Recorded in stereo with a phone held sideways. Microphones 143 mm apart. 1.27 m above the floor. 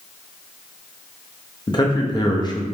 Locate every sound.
1.7 s a man speaking: 30° left (ahead or behind), 0.6 m